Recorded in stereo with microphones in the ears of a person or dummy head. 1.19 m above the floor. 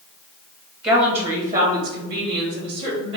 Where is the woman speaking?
20° right (ahead or behind), 0.9 m; by 3.2 s 65° right (ahead or behind), 2.5 m.